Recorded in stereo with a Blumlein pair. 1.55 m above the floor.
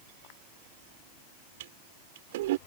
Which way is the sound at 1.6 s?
55° right.